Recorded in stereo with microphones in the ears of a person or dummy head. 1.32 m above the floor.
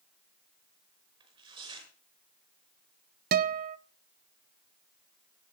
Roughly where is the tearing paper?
Right.